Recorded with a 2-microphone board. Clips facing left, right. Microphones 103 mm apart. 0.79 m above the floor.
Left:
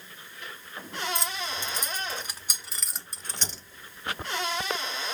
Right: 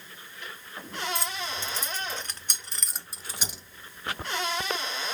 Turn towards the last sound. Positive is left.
turn(degrees=-15)  # may be behind; listen again after turning